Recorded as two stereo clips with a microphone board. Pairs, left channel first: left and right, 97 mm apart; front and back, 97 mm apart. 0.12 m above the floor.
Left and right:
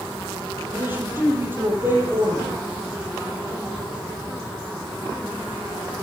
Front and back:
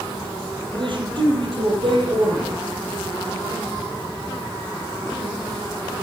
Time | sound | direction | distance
0.7 | a man speaking | 155° right | 4 m